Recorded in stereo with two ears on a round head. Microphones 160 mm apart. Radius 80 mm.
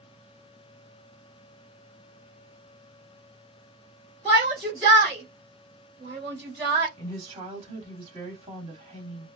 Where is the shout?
15° right (ahead or behind), 1.6 m.